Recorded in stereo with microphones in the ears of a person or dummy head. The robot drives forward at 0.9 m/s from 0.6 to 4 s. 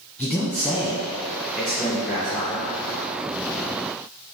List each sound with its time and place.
0.2 s a man speaking: 5° left (ahead or behind), 1.1 m; by 2.7 s centre (ahead or behind), 3 m